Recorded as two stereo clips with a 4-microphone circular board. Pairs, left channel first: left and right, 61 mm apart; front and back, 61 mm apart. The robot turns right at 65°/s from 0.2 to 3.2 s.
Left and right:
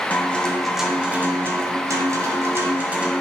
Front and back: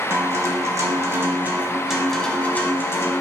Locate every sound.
0.1 s a guitar: 150° left, 1.6 m; by 3.1 s 20° right, 1.6 m